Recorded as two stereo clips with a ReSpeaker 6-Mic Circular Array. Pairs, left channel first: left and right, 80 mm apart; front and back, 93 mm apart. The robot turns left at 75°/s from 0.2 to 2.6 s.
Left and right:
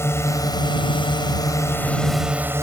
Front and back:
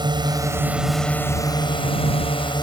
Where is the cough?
I don't hear a cough.